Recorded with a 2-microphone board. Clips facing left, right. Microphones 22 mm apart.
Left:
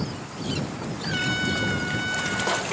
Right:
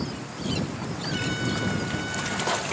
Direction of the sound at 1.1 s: 25° left (ahead or behind).